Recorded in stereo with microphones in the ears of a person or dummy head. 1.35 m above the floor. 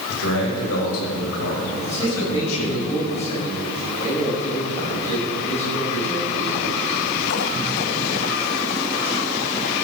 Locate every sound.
0.1 s a man speaking: 65° left (ahead or behind), 5 m; by 2.8 s 90° left, 7 m
1.8 s a man speaking: 30° left (ahead or behind), 7 m